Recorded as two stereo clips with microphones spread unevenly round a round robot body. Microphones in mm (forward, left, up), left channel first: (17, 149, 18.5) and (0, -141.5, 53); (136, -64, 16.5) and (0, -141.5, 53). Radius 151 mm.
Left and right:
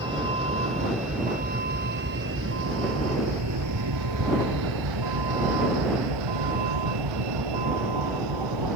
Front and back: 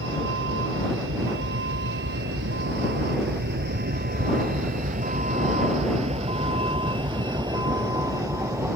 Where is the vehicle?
170° right; by 8.8 s 80° right.